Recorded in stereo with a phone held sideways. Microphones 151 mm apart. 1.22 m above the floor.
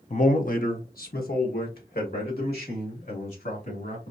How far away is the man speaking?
About 0.7 m.